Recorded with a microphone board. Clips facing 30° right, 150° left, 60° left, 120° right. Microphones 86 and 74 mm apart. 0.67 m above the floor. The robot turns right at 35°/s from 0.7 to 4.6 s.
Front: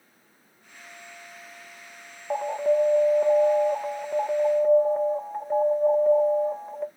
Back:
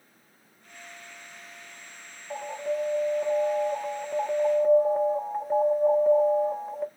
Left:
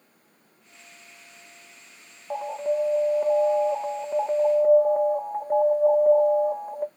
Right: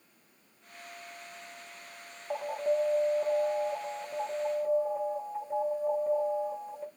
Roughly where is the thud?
I don't hear a thud.